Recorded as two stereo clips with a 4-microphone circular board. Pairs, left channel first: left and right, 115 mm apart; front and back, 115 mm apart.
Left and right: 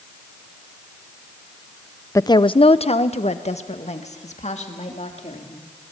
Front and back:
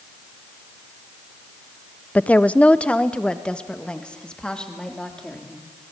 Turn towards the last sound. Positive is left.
turn(degrees=80)